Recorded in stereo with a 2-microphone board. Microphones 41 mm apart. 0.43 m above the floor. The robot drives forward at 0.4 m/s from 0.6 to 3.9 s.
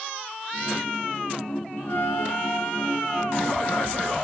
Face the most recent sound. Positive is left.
turn(degrees=65)  # may be behind; listen again after turning